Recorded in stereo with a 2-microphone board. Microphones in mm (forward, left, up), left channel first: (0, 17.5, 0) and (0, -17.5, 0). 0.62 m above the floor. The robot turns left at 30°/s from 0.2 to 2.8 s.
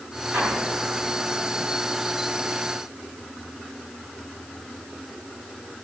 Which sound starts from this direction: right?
An explosion, at 0.3 s.